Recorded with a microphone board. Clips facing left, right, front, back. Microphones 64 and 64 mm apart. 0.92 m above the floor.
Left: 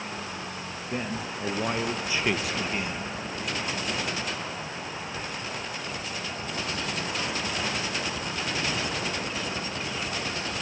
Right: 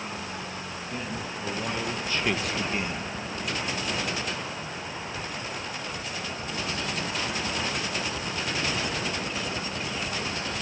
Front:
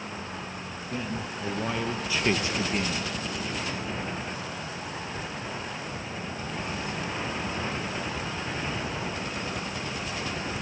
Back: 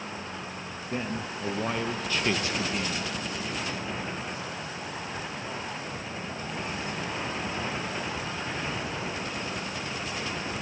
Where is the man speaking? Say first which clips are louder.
Left 3 dB, back 1 dB; 135° left, 1.1 m; by 3.1 s 15° right, 1.0 m.